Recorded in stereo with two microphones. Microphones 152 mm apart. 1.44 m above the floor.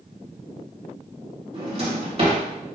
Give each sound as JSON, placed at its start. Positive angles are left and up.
{"t": 1.5, "sound": "a drawer", "side_deg": -40, "distance_m": 1.2}